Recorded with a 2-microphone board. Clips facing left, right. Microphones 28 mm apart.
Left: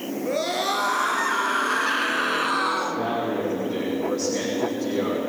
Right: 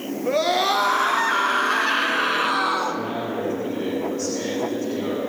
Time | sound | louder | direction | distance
0.3 | a scream | right 5 dB | 15° right (ahead or behind) | 3.5 m
2.9 | a man speaking | left 1 dB | 65° left (ahead or behind) | 9.5 m